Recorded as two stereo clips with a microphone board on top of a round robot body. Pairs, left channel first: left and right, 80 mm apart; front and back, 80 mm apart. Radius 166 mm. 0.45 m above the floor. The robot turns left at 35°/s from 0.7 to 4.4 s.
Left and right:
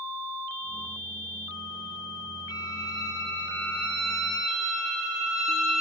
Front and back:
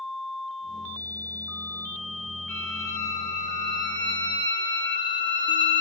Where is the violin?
65° left, 4 m; by 5.8 s 5° right, 4 m.